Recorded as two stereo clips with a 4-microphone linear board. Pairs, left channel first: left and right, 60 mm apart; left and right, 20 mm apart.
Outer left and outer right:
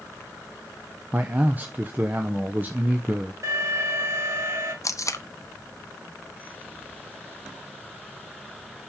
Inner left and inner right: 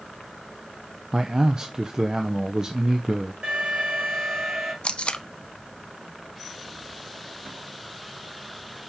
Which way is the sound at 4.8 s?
60° left (ahead or behind).